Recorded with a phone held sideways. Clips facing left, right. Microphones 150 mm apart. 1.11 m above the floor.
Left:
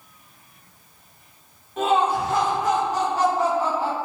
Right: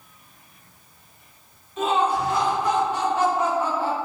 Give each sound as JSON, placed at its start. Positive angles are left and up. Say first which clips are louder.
{"t": 1.8, "sound": "laughter", "louder": "left 1 dB", "side_deg": 55, "distance_m": 2.0}